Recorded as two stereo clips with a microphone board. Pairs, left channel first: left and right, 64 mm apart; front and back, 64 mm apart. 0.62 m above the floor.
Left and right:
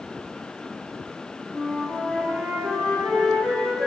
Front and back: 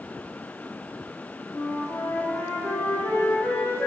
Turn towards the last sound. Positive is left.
turn(degrees=0)